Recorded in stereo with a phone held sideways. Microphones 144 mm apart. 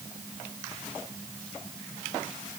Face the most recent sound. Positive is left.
No sound to turn to.